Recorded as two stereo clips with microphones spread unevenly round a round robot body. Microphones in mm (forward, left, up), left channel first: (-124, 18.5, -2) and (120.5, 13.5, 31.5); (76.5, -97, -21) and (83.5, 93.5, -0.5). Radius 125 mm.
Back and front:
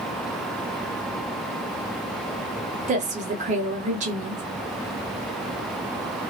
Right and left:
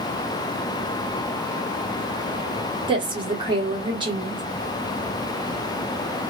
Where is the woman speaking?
40° left, 0.9 m.